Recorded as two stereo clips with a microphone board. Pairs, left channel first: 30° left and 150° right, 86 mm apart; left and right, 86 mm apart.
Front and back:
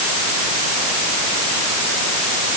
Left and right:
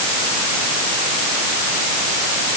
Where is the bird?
No bird in this recording.